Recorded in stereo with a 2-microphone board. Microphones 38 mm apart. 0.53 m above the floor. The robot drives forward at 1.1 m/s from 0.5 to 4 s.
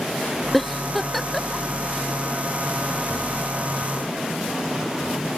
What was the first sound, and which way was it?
A giggle, centre (ahead or behind).